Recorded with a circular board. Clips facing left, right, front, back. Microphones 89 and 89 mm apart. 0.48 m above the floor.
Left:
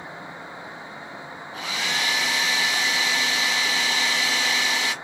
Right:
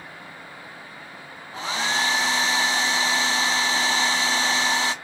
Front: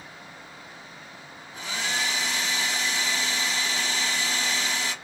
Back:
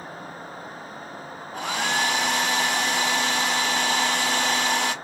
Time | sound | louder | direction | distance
1.5 | a hair dryer | right 3 dB, back 6 dB | 150° right | 0.9 m